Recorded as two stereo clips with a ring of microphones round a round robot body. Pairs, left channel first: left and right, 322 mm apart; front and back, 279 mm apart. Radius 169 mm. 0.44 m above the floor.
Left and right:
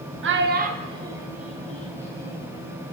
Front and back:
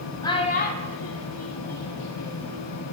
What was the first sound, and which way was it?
A child speaking, 70° right.